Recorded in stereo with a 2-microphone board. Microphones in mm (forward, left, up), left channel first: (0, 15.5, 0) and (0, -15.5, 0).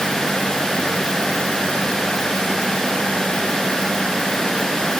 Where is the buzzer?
I don't hear a buzzer.